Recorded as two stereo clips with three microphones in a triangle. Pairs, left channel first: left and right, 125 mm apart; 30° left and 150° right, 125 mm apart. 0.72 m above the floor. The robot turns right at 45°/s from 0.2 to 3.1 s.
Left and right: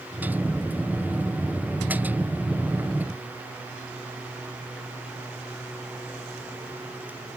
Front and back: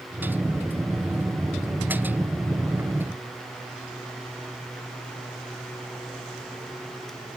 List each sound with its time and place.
Only background noise.